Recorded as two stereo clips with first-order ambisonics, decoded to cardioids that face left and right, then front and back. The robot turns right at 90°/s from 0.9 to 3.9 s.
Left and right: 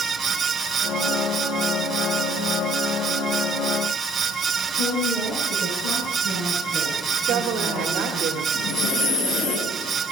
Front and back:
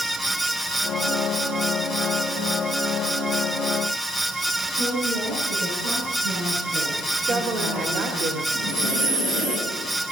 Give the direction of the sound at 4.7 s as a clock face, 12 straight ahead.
7 o'clock.